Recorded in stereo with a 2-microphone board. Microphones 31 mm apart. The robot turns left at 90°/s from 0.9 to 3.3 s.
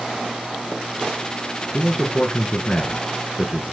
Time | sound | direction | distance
1.7 | a man speaking | 165° left | 1.5 m